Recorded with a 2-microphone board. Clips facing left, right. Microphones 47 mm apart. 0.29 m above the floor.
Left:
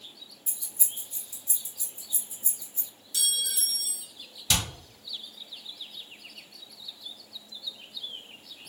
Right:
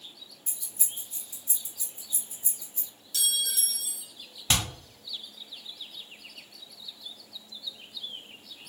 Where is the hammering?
40° right (ahead or behind), 1.6 m.